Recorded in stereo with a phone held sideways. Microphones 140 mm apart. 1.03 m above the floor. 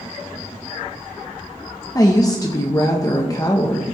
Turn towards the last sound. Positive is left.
turn(degrees=25)  # may be behind; listen again after turning